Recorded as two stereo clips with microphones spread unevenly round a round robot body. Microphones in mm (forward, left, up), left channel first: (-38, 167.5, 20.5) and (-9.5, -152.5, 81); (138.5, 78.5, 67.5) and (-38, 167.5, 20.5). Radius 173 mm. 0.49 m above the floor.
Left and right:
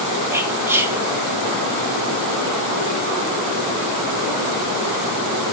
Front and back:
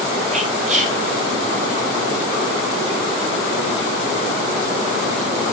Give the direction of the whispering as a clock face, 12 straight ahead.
6 o'clock.